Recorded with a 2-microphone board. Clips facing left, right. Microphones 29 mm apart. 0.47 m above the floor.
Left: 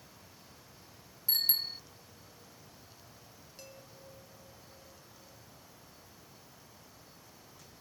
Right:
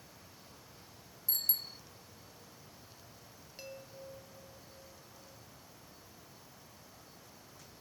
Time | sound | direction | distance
1.3 | a bicycle bell | 40° left (ahead or behind) | ?
3.6 | a chime | 20° right (ahead or behind) | ?